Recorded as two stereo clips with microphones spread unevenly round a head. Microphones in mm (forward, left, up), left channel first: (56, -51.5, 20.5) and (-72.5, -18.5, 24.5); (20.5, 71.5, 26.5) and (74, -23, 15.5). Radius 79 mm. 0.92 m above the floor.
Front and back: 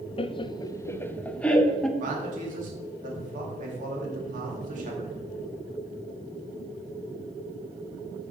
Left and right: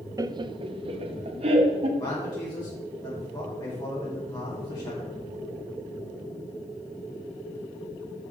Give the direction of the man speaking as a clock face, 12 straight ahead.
6 o'clock.